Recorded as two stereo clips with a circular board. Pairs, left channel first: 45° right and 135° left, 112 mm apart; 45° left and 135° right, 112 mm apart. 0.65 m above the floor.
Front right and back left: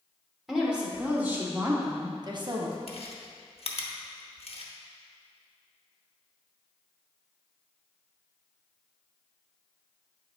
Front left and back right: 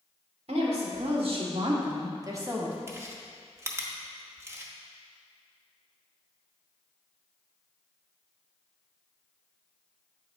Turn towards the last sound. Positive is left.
turn(degrees=-70)